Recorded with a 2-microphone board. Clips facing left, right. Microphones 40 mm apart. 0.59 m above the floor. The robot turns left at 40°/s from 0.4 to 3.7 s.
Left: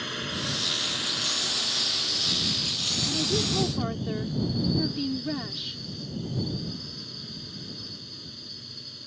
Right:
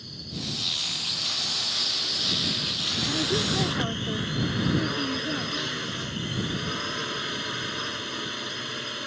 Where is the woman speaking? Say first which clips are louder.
Right 1 dB; 15° right (ahead or behind); by 5.8 s 5° left (ahead or behind).